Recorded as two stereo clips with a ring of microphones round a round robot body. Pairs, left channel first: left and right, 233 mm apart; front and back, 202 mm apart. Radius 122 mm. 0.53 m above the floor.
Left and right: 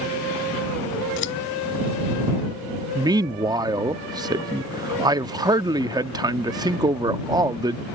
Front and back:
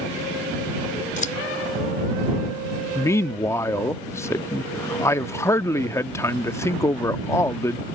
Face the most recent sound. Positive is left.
turn(degrees=-50)